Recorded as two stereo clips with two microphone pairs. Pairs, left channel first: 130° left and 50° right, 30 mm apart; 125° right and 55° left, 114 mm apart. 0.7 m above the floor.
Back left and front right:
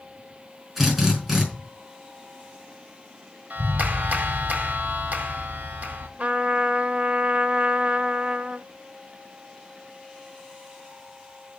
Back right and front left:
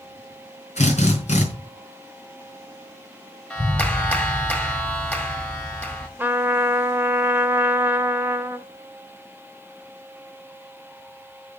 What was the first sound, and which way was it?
A drill, 135° right.